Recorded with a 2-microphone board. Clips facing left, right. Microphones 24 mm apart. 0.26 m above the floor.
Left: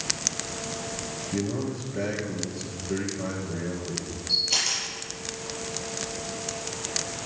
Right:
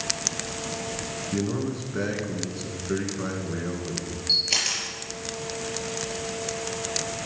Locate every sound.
1.3 s a man speaking: 40° right (ahead or behind), 3 m
4.3 s a camera shutter: 55° right (ahead or behind), 5 m